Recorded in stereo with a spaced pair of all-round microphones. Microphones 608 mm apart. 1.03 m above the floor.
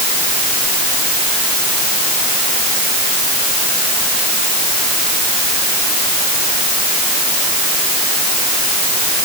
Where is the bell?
No bell in this recording.